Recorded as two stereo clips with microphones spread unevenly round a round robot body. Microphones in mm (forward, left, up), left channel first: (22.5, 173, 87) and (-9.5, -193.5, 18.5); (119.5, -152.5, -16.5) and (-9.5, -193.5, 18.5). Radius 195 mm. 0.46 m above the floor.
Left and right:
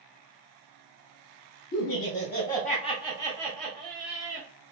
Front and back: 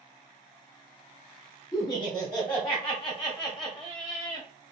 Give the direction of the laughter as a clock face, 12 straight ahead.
10 o'clock.